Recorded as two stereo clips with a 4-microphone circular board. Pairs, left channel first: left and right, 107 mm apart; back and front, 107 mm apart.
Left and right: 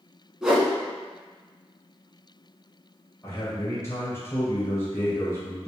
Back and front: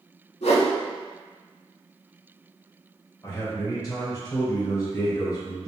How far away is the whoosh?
About 0.9 m.